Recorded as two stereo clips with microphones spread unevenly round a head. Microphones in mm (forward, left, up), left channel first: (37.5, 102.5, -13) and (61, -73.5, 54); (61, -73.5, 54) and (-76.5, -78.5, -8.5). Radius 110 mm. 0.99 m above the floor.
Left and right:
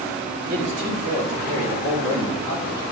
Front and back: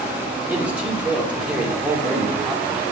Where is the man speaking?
105° right, 3.5 m.